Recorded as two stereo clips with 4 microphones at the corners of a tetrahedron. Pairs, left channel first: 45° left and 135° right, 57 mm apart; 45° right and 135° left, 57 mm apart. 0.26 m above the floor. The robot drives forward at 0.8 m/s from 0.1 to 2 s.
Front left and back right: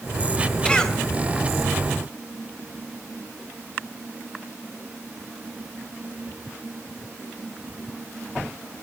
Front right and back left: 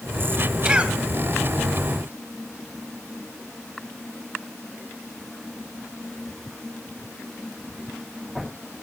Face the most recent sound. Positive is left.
turn(degrees=155)